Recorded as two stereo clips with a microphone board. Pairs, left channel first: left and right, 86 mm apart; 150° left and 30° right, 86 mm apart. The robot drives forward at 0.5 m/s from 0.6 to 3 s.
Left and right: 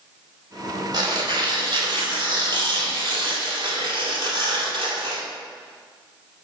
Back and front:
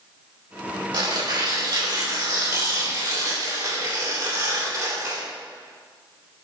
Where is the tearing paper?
55° right, 3 m; by 5.2 s 75° right, 2.5 m.